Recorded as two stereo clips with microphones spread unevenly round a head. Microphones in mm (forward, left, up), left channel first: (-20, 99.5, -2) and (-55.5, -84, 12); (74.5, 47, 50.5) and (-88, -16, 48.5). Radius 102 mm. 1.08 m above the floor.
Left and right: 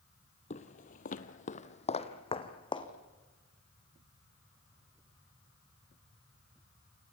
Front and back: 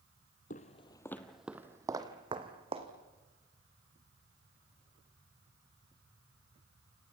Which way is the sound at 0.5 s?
35° left.